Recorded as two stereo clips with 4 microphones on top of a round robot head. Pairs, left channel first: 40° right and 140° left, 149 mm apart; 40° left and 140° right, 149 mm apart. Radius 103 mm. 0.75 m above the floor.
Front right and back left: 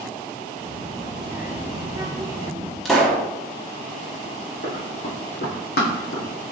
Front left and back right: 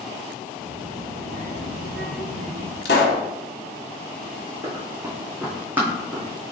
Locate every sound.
0.6 s a child speaking: 130° right, 1.9 m; by 2.8 s 165° right, 1.6 m
2.9 s a pop: 45° left, 0.9 m
4.6 s running footsteps: 75° right, 2 m; by 6.3 s 55° right, 1.8 m